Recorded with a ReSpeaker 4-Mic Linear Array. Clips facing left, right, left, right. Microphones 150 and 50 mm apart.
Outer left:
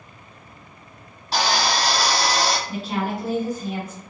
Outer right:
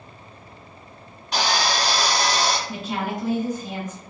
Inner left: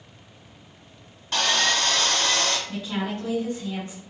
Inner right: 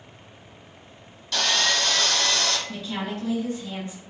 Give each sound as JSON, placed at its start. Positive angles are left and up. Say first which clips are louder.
{"t": 1.3, "sound": "sawing", "louder": "outer left 1 dB, inner left 1 dB", "side_deg": 35, "distance_m": 1.0}
{"t": 2.7, "sound": "a woman speaking", "louder": "outer left 2 dB, inner left 2 dB", "side_deg": 35, "distance_m": 1.9}